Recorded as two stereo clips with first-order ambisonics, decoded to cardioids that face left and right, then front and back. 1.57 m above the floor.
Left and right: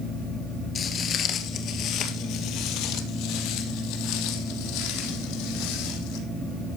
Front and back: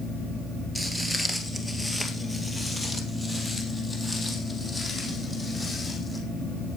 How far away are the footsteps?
About 1.6 m.